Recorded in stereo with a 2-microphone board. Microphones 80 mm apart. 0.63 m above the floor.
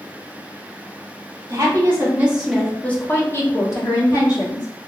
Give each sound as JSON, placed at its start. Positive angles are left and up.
{"t": 1.5, "sound": "a woman speaking", "side_deg": -45, "distance_m": 1.0}